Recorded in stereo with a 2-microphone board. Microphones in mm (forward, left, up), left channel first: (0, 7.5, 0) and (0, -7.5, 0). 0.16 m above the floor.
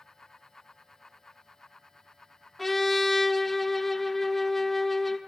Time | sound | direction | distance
2.6 | a trumpet | 15° left (ahead or behind) | 1.2 m